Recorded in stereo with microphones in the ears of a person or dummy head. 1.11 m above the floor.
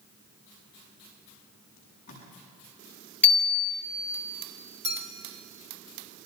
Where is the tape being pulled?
45° left (ahead or behind), 7.5 m.